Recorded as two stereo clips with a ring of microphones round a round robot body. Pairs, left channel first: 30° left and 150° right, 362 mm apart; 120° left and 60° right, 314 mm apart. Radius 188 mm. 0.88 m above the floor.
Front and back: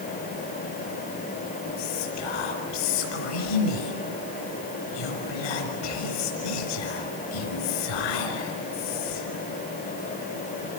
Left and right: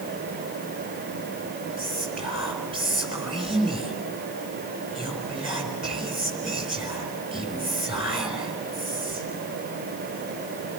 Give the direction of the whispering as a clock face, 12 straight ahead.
11 o'clock.